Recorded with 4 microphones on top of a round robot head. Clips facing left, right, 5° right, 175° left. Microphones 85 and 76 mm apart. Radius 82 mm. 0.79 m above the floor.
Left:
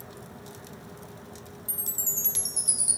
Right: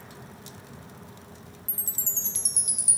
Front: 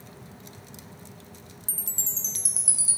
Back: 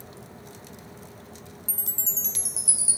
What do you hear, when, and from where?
1.7 s a chime: 40° right, 1.2 m